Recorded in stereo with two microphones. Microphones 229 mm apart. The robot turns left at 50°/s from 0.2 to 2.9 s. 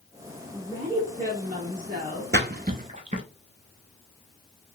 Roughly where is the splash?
Right.